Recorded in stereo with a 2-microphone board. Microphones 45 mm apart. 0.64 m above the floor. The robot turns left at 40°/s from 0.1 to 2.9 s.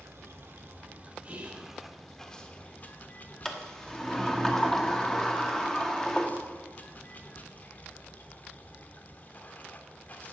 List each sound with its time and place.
0.0 s running water: 110° right, 1.0 m; by 10.3 s 140° left, 1.0 m
1.2 s whispering: 35° right (ahead or behind), 0.9 m
3.5 s a sliding door: 10° left (ahead or behind), 1.0 m